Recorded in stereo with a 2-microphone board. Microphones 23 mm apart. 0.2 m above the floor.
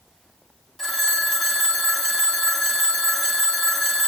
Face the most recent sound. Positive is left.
turn(degrees=10)  # may be behind; listen again after turning